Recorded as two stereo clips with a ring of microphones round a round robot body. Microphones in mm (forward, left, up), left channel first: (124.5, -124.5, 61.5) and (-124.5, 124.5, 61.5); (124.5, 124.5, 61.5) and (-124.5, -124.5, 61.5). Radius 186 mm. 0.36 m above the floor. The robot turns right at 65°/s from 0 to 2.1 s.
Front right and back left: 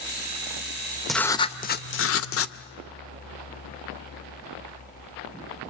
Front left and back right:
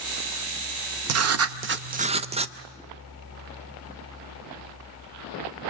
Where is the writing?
135° right, 0.8 m; by 2.5 s 70° right, 0.8 m.